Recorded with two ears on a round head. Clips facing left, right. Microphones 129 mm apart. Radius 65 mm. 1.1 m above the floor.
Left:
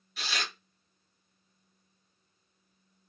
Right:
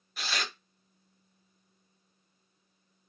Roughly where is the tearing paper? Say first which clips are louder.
Right 1 dB; right.